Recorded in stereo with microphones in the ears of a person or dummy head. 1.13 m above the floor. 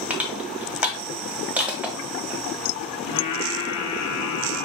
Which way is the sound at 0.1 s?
5° right (ahead or behind).